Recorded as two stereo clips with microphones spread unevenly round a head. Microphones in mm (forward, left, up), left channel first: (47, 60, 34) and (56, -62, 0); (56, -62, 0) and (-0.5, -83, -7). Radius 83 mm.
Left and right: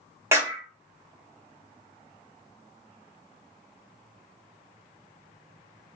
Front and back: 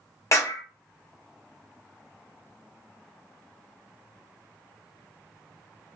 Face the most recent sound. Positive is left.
turn(degrees=-20)